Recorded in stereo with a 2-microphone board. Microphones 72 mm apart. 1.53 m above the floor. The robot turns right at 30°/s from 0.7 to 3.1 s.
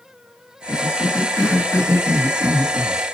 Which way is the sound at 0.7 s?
75° left (ahead or behind).